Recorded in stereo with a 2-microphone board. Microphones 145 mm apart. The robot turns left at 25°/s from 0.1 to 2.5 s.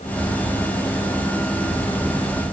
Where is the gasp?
I don't hear a gasp.